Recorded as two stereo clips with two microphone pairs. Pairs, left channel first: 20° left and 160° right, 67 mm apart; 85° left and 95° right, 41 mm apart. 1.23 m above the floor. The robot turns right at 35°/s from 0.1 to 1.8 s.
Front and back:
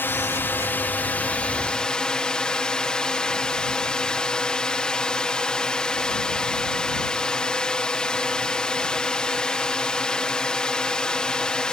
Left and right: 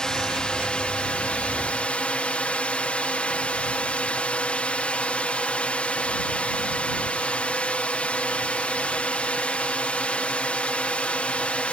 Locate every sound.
0.0 s a drone: 25° left; by 11.7 s 85° left